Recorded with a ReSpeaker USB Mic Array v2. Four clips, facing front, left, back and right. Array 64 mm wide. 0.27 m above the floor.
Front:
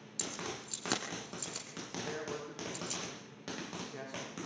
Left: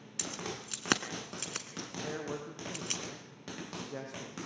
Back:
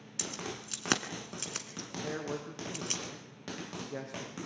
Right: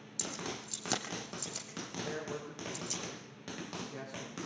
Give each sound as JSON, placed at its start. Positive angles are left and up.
{"t": 0.2, "sound": "keys jangling", "azimuth_deg": 120, "distance_m": 2.5}
{"t": 2.0, "sound": "a man speaking", "azimuth_deg": 140, "distance_m": 9.0}